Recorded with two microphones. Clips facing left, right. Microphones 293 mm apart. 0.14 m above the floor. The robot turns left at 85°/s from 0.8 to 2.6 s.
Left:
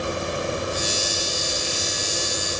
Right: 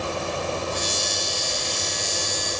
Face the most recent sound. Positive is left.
No sound to turn to.